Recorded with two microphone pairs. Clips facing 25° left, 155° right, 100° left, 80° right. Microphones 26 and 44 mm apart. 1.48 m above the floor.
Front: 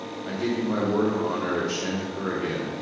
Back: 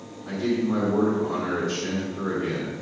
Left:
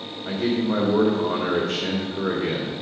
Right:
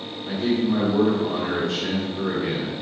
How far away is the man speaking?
About 1.7 m.